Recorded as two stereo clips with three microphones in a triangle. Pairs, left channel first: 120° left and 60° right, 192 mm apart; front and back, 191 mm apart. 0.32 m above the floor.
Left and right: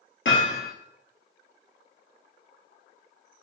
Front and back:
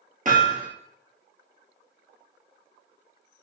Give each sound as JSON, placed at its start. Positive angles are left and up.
{"t": 0.2, "sound": "hammering", "azimuth_deg": 135, "distance_m": 1.8}